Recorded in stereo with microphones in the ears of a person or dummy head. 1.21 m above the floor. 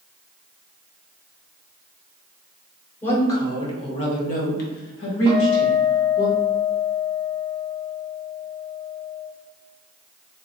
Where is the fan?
I don't hear a fan.